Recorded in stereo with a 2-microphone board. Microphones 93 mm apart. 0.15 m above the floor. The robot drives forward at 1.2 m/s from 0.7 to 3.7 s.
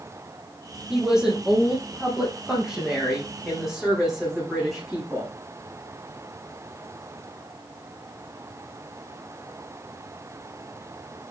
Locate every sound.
0.9 s a woman speaking: 5° right (ahead or behind), 5.5 m